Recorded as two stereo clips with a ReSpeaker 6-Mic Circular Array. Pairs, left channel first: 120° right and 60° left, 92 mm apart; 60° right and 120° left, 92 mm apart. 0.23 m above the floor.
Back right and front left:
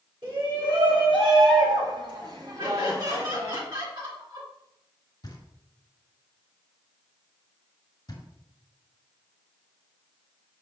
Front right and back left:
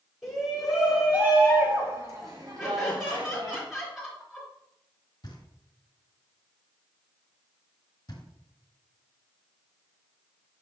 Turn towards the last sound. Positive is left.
turn(degrees=-85)